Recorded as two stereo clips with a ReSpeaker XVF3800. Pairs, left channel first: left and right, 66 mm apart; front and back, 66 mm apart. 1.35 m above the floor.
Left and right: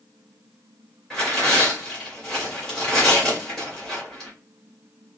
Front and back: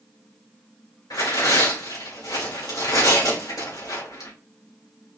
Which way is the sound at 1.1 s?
5° left.